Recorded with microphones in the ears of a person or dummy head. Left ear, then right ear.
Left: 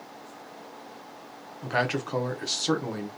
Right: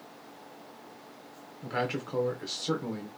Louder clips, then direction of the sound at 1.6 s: Left 5 dB; 20° left (ahead or behind).